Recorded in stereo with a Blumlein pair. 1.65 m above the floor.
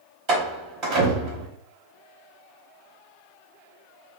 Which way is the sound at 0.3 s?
40° right.